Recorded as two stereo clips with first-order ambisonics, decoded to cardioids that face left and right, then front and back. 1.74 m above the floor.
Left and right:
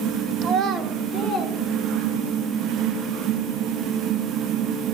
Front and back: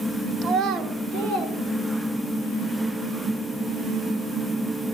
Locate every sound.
0.4 s a child speaking: 125° right, 0.8 m; by 2.4 s 165° right, 2.5 m